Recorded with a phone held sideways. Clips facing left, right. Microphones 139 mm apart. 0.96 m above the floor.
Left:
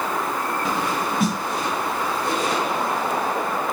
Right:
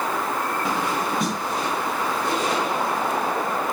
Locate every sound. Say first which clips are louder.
1.2 s a snare drum: left 3 dB; 5° left (ahead or behind), 2 m